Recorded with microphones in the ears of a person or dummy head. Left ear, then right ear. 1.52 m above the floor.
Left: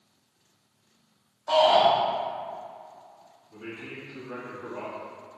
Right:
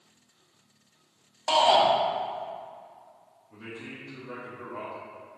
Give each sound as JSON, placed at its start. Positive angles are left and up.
{"t": 1.5, "sound": "a shout", "side_deg": -75, "distance_m": 1.7}
{"t": 3.5, "sound": "a man speaking", "side_deg": -75, "distance_m": 2.0}